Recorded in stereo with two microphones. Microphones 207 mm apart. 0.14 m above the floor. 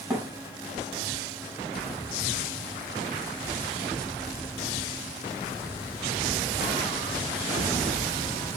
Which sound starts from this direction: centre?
A thud, at 0.1 s.